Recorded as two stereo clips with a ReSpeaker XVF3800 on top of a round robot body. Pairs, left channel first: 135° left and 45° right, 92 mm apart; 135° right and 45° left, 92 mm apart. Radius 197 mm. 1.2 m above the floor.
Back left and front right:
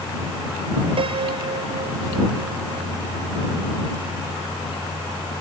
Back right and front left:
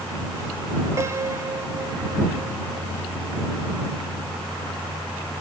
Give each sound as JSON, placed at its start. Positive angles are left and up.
{"t": 1.0, "sound": "a piano", "azimuth_deg": -15}